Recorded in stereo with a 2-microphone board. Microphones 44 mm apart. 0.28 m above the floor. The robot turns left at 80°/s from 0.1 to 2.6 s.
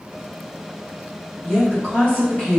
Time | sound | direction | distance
1.4 | a woman speaking | 155° left | 1.9 m